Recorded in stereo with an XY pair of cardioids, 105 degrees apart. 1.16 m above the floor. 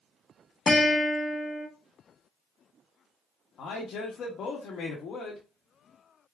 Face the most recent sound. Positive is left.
turn(degrees=65)